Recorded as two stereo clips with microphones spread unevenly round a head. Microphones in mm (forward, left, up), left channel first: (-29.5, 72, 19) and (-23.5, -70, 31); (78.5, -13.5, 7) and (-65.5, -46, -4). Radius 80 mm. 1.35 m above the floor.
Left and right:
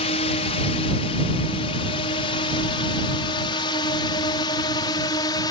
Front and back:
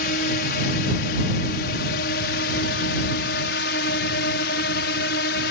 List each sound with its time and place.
0.0 s a drone: 45° left; by 5.5 s 25° left